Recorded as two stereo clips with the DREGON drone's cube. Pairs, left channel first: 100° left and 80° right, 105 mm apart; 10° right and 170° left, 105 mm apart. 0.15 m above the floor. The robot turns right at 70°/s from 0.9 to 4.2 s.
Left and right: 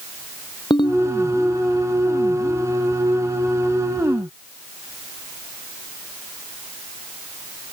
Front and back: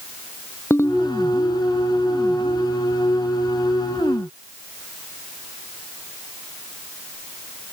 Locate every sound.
0.7 s a ringtone: 55° left; by 1.1 s 65° left